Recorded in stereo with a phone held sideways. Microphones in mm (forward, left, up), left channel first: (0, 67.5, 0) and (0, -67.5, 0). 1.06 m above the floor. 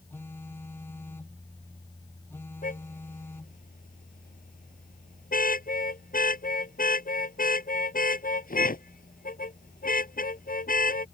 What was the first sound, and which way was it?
A phone buzzing, 15° left (ahead or behind).